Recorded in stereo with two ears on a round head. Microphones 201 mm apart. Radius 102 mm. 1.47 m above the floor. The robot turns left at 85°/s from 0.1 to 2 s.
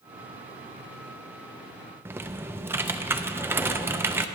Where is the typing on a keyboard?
10° right (ahead or behind), 0.6 m.